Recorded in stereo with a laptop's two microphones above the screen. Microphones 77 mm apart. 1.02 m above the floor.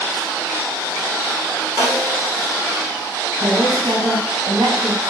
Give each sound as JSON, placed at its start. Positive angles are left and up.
{"t": 1.8, "sound": "a snare drum", "side_deg": -30, "distance_m": 1.1}
{"t": 3.4, "sound": "a woman speaking", "side_deg": -75, "distance_m": 1.5}